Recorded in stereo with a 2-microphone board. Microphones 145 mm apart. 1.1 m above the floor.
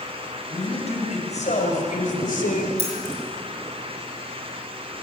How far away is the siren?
I don't hear a siren.